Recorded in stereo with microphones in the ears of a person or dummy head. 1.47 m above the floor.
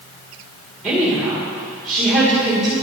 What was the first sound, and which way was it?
A woman speaking, 5° right (ahead or behind).